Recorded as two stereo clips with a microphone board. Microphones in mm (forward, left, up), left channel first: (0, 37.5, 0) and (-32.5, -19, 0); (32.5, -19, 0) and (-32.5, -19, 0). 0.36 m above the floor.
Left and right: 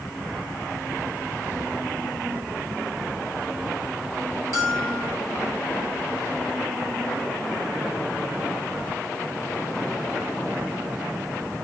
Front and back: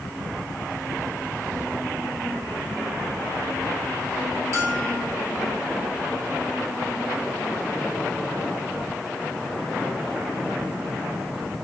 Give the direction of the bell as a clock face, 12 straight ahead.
5 o'clock.